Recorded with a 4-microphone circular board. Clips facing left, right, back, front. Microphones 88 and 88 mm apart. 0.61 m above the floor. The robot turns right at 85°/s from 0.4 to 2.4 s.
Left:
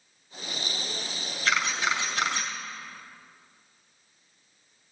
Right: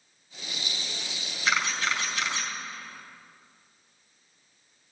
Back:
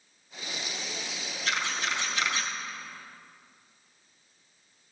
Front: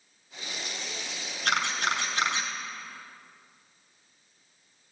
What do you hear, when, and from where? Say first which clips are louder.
1.4 s a camera shutter: left 1 dB, front 4 dB; 20° right, 2 m; by 2.5 s 60° left, 2 m